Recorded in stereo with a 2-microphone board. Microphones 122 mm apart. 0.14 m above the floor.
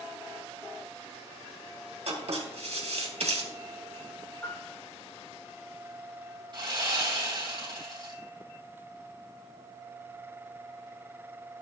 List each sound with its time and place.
2.1 s writing: 65° right (ahead or behind), 2.5 m
4.4 s a piano: 15° left (ahead or behind), 5 m
6.5 s sawing: 40° right (ahead or behind), 3.5 m